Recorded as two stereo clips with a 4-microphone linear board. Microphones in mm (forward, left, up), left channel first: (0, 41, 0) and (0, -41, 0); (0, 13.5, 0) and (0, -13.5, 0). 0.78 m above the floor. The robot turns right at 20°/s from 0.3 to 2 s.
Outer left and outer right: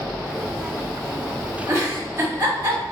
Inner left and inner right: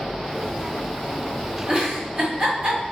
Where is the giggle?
30° right (ahead or behind), 0.8 m; by 2.8 s 35° right (ahead or behind), 0.8 m.